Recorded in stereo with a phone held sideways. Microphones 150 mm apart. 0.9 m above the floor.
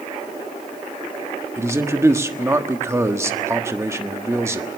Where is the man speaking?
20° right (ahead or behind), 1.4 m.